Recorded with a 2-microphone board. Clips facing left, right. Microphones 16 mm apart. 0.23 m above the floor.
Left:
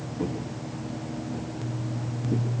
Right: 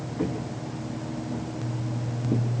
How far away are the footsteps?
About 5.5 m.